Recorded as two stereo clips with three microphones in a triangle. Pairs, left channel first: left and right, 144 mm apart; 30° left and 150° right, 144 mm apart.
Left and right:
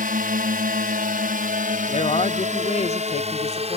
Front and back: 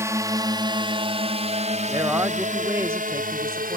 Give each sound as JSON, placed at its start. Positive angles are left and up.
{"t": 0.0, "sound": "a drone", "azimuth_deg": -80}
{"t": 1.9, "sound": "a man speaking", "azimuth_deg": 135}